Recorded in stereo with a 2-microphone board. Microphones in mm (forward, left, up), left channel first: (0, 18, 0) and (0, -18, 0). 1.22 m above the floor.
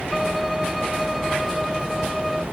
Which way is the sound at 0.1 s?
5° right (ahead or behind).